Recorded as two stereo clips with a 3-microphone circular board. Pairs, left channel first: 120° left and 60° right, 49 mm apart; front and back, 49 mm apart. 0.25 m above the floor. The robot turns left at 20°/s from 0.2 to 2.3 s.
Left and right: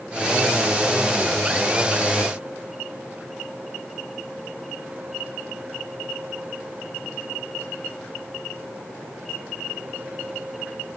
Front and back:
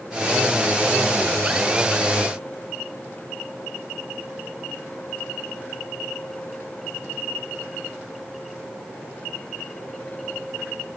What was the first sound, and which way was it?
Only background noise.